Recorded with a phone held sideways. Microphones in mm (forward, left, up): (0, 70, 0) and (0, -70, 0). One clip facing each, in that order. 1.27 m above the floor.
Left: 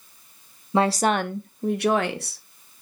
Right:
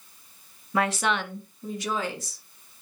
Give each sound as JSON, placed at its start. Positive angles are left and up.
{"t": 0.7, "sound": "a woman speaking", "side_deg": 25, "distance_m": 0.6}